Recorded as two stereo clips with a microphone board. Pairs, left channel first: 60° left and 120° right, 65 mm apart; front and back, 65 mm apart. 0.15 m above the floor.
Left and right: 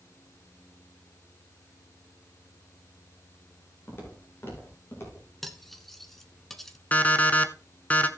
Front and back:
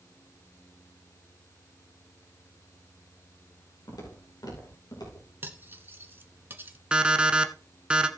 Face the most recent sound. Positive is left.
turn(degrees=110)